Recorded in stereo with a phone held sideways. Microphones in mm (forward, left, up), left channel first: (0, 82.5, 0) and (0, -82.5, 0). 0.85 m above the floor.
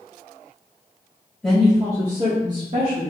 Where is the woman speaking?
5° left (ahead or behind), 1.6 m; by 3.1 s 70° right (ahead or behind), 2.5 m.